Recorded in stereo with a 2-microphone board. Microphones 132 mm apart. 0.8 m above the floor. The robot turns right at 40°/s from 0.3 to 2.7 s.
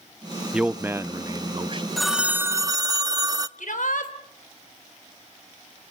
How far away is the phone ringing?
About 0.6 m.